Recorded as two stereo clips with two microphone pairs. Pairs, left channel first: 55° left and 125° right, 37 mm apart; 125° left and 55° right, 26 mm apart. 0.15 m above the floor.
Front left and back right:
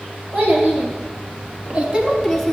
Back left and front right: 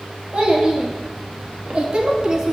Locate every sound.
0.3 s a child speaking: 100° right, 2 m; by 2.5 s 15° right, 0.8 m